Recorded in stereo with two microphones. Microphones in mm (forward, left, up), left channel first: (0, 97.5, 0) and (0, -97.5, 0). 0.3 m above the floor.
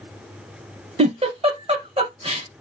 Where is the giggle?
30° right (ahead or behind), 0.8 m.